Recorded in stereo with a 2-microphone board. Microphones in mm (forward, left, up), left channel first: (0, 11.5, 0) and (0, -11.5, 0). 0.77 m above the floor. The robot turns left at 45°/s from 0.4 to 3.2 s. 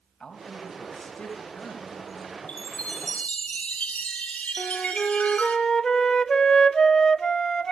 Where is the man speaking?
150° left, 6 m; by 2.4 s 65° left, 6 m.